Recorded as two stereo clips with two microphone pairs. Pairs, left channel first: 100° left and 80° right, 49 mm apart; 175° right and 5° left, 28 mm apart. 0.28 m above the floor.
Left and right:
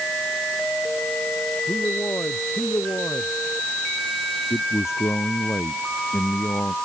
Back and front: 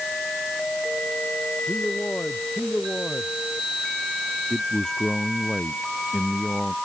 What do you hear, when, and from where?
1.7 s a man speaking: 120° left; by 3.5 s 125° left
4.5 s a man speaking: 115° left